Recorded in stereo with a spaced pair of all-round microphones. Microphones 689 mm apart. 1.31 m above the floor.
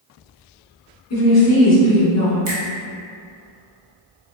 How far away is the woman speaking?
About 1.6 m.